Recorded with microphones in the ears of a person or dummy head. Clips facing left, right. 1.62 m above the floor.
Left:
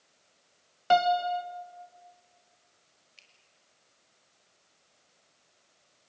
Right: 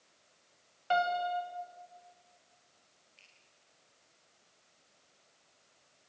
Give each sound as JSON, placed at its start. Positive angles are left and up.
{"t": 0.9, "sound": "a piano", "side_deg": 65, "distance_m": 1.6}
{"t": 3.2, "sound": "a finger snap", "side_deg": 70, "distance_m": 5.5}